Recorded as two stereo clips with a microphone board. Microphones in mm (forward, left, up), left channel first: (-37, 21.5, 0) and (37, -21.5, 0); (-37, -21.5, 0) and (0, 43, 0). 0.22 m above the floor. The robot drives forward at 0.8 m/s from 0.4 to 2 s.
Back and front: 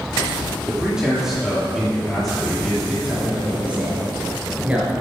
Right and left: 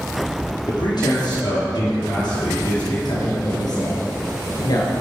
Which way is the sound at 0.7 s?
110° right.